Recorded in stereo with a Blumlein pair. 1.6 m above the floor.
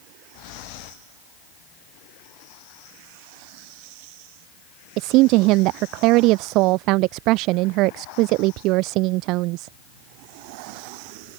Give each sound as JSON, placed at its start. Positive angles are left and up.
{"t": 5.0, "sound": "a woman speaking", "azimuth_deg": -40}